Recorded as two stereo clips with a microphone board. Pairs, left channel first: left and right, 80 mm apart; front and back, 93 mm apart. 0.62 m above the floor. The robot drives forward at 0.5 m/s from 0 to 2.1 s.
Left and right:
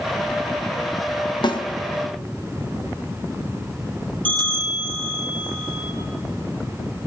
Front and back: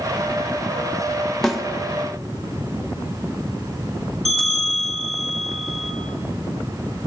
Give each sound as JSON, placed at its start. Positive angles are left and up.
{"t": 1.4, "sound": "a snare drum", "azimuth_deg": 85, "distance_m": 1.5}
{"t": 4.2, "sound": "a bell", "azimuth_deg": -90, "distance_m": 6.0}